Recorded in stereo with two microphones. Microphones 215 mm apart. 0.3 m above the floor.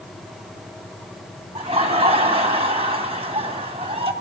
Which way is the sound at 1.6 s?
30° right (ahead or behind).